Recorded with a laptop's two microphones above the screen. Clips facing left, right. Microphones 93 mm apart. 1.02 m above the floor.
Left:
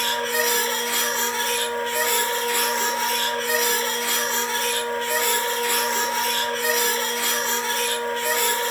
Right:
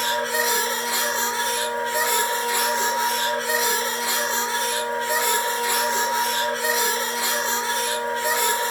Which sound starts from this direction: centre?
A machine running, at 0.0 s.